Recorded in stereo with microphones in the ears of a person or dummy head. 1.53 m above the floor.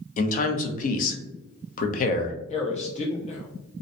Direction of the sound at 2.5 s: 40° left (ahead or behind).